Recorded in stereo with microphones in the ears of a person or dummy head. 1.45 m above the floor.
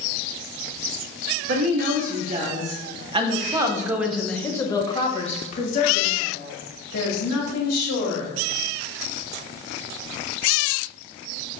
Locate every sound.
1.5 s a woman speaking: 50° right (ahead or behind), 1.8 m; by 8.3 s 75° left (ahead or behind), 2.5 m